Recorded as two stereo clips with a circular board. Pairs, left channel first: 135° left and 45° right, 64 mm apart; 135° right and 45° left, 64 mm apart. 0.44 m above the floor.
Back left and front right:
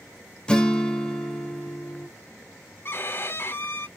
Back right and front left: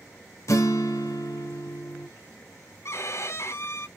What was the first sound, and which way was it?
A guitar, 155° right.